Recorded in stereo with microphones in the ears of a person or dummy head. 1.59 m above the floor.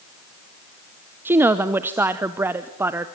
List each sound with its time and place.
1.2 s a woman speaking: 10° right (ahead or behind), 0.8 m